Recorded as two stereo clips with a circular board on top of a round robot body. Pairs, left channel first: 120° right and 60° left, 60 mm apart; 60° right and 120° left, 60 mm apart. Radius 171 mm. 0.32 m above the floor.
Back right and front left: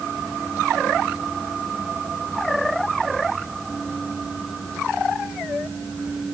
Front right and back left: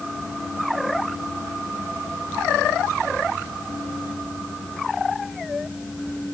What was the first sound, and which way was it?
Only background noise.